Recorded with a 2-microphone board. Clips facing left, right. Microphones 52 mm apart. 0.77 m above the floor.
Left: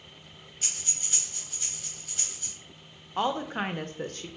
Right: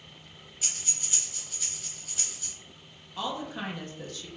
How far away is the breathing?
About 1.9 m.